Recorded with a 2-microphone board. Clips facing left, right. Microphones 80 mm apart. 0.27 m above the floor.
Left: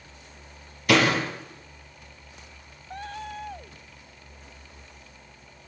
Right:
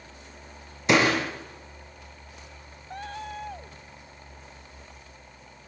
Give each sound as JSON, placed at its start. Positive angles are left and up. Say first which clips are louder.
{"t": 0.9, "sound": "a door slam", "louder": "even", "side_deg": -20, "distance_m": 6.0}